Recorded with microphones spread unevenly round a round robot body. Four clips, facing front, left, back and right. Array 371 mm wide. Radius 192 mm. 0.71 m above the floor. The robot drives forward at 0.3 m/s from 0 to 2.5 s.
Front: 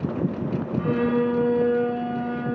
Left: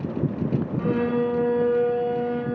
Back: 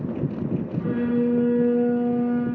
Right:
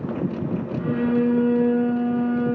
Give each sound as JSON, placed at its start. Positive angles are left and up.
{"t": 0.8, "sound": "a violin", "azimuth_deg": 50, "distance_m": 1.3}